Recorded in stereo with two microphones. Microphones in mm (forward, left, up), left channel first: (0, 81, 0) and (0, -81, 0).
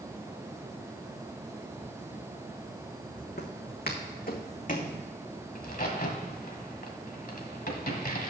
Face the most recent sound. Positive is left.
turn(degrees=60)  # may be behind; listen again after turning